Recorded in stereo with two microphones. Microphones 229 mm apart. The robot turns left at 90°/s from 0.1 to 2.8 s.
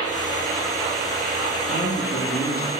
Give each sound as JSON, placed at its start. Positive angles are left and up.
{"t": 1.7, "sound": "a woman speaking", "azimuth_deg": -155, "distance_m": 2.0}